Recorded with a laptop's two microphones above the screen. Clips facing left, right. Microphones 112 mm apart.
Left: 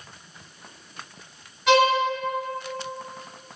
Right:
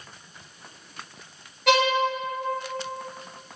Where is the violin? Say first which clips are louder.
Left 3 dB; 75° right (ahead or behind), 1.9 m.